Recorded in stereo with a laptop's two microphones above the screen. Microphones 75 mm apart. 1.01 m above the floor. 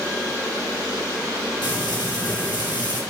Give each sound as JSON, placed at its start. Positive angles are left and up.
{"t": 1.6, "sound": "frying", "side_deg": 75, "distance_m": 3.5}